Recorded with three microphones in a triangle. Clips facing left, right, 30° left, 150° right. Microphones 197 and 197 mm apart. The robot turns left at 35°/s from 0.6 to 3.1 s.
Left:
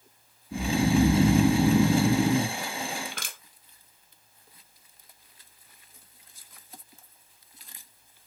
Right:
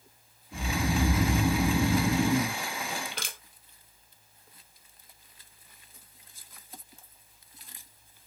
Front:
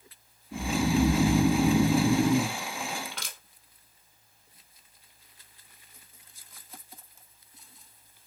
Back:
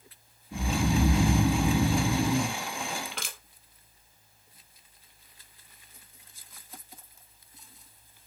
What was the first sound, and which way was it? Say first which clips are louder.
Snoring: left 7 dB, front 2 dB; 120° left.